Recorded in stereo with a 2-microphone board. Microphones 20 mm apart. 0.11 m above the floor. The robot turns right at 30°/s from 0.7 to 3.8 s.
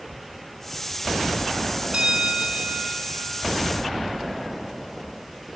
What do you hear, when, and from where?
1.9 s a bell: 125° right, 2.0 m; by 3.8 s 70° right, 2.0 m